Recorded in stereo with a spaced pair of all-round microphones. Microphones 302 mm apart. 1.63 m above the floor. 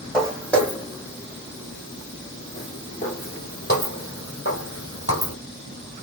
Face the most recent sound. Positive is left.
turn(degrees=45)  # may be behind; listen again after turning